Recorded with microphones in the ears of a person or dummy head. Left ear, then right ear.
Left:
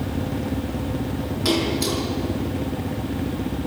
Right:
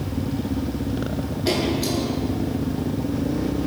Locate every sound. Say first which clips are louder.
1.4 s a splash: left 1 dB; 65° left (ahead or behind), 6 m